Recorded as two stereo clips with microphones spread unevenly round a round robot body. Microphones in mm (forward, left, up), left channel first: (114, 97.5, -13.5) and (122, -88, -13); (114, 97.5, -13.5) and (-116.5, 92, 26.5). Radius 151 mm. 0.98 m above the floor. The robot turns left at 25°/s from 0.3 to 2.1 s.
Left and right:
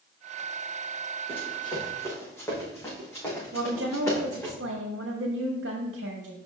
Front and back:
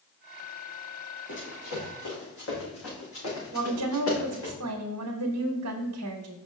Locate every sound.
1.3 s running footsteps: 35° left, 3.5 m; by 4.5 s 20° left, 6 m
3.5 s a woman speaking: 145° right, 0.8 m